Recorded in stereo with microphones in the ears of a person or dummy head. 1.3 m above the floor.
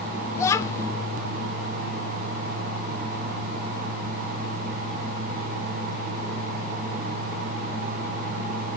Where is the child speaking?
15° left (ahead or behind), 1.1 m.